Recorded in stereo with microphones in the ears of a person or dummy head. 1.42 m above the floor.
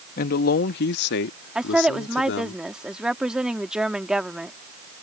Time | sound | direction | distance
0.2 | a man speaking | 55° left (ahead or behind) | ?
1.6 | a woman speaking | centre (ahead or behind) | ?